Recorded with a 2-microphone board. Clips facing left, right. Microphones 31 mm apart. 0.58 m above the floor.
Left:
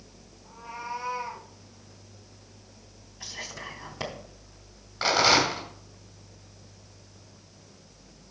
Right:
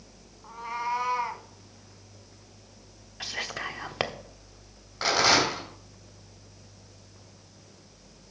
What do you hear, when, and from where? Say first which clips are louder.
0.4 s a cat meowing: right 6 dB; 80° right, 1.4 m
3.2 s whispering: right 5 dB; 55° right (ahead or behind), 1.0 m
5.0 s a rattle: left 1 dB; 5° left (ahead or behind), 4 m